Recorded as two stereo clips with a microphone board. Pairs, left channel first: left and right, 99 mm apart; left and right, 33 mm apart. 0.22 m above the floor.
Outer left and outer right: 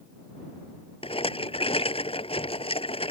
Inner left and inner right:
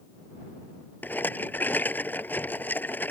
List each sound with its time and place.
1.0 s a rattle: 75° left (ahead or behind)